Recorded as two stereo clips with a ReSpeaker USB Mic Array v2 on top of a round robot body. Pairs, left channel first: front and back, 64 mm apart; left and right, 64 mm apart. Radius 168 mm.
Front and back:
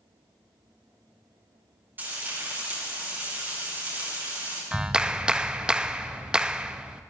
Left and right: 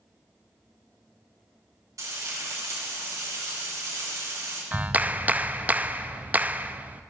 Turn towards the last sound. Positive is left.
turn(degrees=-120)